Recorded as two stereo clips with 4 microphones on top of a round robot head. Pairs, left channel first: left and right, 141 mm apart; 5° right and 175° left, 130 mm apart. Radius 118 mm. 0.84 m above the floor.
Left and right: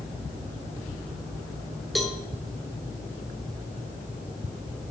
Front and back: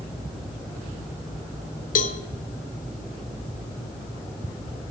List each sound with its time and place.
1.9 s a cowbell: straight ahead, 1.2 m